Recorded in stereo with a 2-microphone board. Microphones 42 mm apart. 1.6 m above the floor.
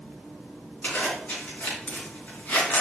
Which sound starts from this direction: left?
A zipper, at 0.8 s.